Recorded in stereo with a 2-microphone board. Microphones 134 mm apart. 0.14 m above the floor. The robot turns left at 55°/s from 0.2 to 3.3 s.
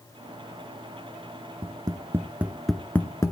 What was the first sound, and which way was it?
Tapping, 40° right (ahead or behind).